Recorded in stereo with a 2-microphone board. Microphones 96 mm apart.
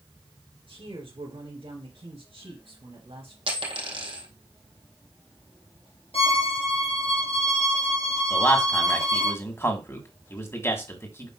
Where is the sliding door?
I don't hear a sliding door.